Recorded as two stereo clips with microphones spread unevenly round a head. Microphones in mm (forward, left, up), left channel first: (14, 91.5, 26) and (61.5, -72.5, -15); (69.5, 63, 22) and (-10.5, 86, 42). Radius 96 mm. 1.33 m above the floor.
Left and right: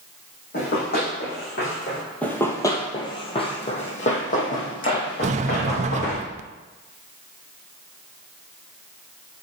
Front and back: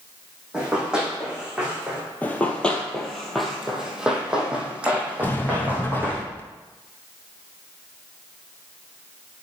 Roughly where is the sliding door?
Ahead right.